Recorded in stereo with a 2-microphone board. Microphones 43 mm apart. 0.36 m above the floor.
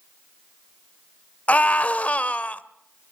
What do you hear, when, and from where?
1.5 s a scream: 35° left (ahead or behind), 1.1 m